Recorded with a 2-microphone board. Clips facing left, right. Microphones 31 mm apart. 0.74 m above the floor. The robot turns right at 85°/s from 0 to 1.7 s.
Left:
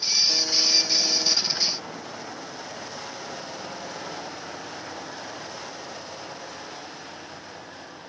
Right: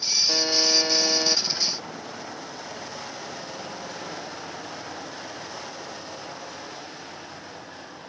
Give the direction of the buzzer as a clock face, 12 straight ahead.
5 o'clock.